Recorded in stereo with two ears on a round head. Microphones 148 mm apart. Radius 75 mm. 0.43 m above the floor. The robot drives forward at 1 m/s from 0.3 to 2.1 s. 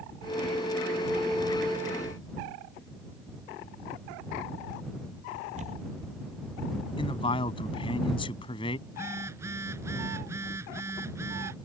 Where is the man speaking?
30° left (ahead or behind).